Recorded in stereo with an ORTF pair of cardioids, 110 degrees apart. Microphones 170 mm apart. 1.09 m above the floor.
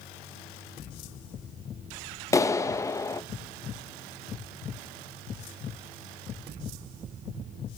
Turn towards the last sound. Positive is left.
turn(degrees=20)